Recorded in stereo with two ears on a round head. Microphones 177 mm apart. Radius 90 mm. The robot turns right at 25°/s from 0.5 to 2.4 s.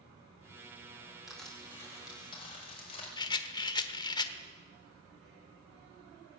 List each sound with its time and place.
1.3 s crushing: centre (ahead or behind), 5.5 m; by 3.1 s 30° left (ahead or behind), 5.5 m
3.2 s a rattle: 20° left (ahead or behind), 1.2 m